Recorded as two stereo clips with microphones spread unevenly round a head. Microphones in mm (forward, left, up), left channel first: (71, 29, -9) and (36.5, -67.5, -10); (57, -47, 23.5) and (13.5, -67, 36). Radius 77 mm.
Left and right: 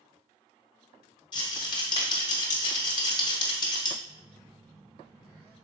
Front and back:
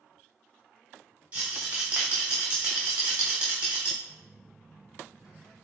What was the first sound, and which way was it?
A rattle, 130° left.